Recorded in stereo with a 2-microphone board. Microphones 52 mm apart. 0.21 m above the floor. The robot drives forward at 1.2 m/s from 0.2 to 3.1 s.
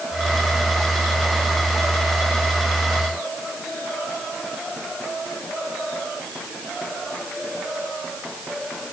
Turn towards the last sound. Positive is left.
No sound to turn to.